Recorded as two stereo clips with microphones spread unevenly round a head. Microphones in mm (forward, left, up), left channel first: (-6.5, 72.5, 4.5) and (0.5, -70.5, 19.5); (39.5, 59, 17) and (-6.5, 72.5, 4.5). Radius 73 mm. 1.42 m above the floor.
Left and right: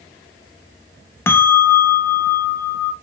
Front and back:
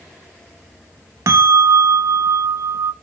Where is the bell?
170° left, 0.5 m.